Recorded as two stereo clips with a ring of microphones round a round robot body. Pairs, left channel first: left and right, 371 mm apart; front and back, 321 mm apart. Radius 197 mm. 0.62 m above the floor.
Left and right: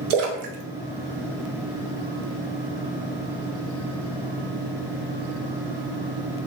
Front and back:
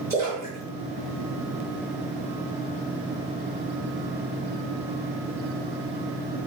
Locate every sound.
0.1 s a splash: 100° right, 0.5 m